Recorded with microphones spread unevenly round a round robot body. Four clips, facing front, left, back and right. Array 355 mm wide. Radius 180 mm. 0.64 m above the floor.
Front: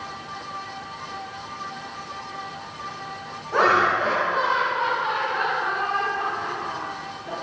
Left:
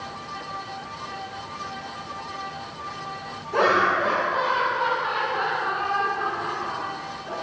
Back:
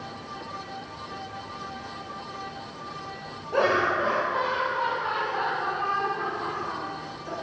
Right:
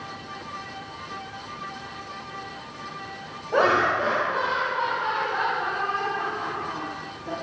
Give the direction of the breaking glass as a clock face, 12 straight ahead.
No breaking glass in this recording.